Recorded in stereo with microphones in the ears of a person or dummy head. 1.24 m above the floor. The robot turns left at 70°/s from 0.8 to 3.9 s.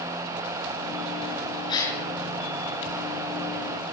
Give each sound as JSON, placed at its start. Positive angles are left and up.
{"t": 1.7, "sound": "a gasp", "side_deg": 25, "distance_m": 5.5}